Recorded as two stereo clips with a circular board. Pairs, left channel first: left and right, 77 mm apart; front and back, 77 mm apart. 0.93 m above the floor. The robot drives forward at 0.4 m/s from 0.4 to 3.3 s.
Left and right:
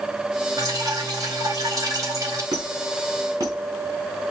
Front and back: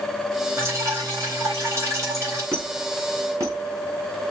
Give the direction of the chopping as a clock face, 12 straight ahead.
I don't hear chopping.